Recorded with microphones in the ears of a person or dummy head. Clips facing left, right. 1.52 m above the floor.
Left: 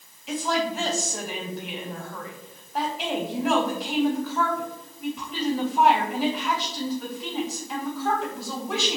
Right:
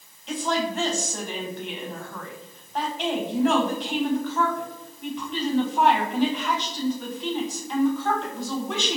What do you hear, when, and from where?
0.3 s a woman speaking: 5° left (ahead or behind), 0.6 m